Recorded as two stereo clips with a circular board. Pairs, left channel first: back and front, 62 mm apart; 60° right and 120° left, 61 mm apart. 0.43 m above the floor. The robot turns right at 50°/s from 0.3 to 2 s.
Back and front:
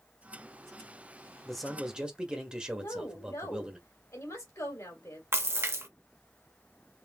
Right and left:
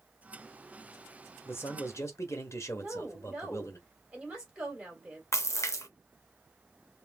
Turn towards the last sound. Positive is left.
turn(degrees=-40)